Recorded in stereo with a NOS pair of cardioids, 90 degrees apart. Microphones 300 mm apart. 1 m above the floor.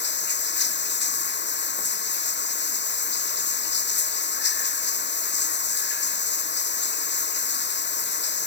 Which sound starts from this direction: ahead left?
Running water, at 0.0 s.